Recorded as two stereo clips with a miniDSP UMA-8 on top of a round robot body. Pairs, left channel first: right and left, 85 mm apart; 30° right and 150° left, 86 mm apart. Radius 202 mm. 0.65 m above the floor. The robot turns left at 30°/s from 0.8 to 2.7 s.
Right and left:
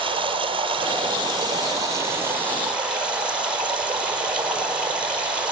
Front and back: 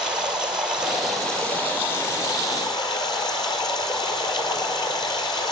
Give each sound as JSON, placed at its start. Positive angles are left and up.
{"t": 0.0, "sound": "running water", "azimuth_deg": 70, "distance_m": 4.5}